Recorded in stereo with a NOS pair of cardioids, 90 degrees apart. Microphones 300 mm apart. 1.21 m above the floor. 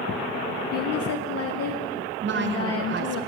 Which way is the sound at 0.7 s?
55° left.